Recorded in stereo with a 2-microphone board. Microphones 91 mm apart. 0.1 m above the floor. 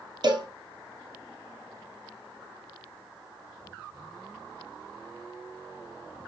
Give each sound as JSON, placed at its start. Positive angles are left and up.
{"t": 0.2, "sound": "a cowbell", "side_deg": -50, "distance_m": 1.3}